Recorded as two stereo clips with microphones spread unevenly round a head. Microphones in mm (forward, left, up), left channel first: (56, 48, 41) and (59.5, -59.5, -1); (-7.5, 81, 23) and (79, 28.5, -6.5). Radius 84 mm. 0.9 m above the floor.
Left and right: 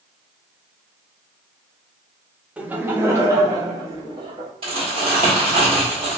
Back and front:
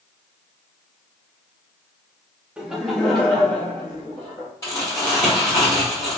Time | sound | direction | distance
2.6 | laughter | 70° right | 0.6 m
4.6 | crumpling | 145° right | 1.1 m